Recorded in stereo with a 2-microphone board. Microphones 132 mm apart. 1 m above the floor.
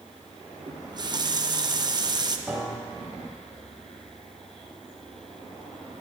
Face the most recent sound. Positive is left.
turn(degrees=-15)  # may be behind; listen again after turning